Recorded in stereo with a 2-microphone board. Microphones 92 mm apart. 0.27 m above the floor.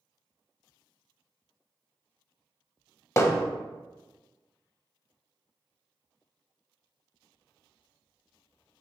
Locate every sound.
3.2 s hammering: 35° left (ahead or behind), 0.6 m